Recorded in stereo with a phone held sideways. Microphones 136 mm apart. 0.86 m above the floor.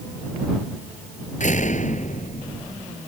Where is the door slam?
65° left (ahead or behind).